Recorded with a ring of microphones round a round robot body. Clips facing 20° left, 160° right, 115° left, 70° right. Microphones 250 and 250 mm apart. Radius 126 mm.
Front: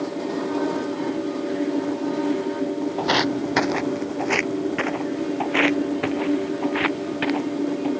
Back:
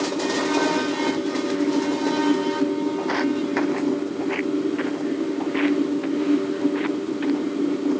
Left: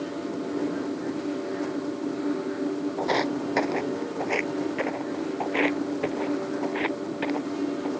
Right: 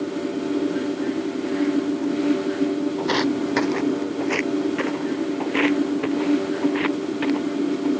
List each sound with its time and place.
3.0 s footsteps: straight ahead; by 7.9 s 5° left